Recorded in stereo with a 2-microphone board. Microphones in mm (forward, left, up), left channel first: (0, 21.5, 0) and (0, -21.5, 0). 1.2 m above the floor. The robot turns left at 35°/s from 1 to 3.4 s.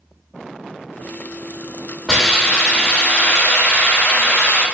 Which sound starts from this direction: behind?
A hiss, at 2.1 s.